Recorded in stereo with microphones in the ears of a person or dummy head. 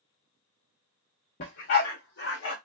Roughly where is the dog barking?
Left.